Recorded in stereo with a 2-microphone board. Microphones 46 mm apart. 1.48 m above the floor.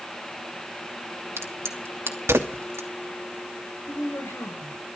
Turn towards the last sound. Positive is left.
turn(degrees=80)